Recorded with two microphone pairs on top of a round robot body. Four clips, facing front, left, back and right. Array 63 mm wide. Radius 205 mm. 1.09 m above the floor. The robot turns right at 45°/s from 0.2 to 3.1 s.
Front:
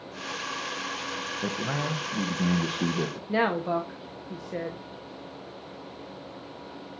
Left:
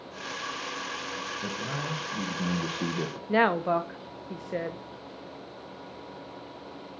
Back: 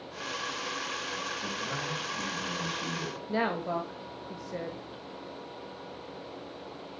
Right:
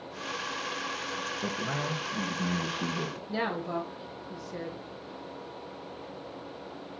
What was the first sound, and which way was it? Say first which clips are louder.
A man speaking: right 2 dB, front 5 dB; 35° right.